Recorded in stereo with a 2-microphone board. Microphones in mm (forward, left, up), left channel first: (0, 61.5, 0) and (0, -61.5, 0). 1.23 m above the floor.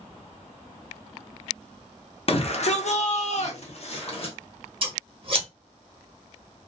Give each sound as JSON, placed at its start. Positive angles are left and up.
{"t": 2.3, "sound": "a shout", "side_deg": 45, "distance_m": 0.7}
{"t": 4.8, "sound": "scissors", "side_deg": -40, "distance_m": 0.9}